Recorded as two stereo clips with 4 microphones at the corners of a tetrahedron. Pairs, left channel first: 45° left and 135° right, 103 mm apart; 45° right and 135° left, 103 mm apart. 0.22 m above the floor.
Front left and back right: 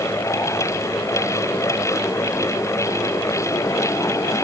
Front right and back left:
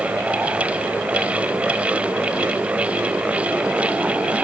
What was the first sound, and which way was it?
Only background noise.